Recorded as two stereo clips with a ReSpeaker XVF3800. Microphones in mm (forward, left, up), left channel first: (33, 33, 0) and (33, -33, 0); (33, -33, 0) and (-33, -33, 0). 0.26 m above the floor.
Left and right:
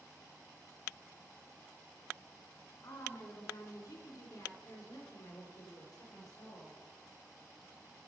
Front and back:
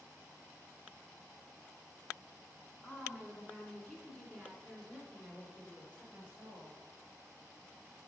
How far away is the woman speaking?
About 2 m.